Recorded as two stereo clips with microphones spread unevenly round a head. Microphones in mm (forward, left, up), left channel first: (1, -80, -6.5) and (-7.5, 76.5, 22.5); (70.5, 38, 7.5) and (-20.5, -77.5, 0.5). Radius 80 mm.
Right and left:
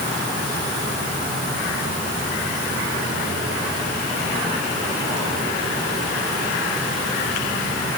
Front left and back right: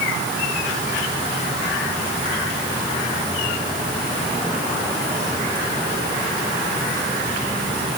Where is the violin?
I don't hear a violin.